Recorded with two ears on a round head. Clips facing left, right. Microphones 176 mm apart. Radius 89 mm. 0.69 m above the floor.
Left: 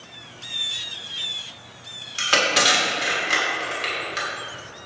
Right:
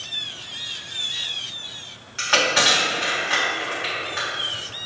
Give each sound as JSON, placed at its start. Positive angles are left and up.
{"t": 2.2, "sound": "crushing", "side_deg": 40, "distance_m": 1.3}